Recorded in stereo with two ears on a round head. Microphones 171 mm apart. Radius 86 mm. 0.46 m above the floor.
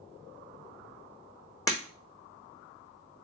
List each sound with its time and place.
1.7 s breaking glass: 15° left (ahead or behind), 1.0 m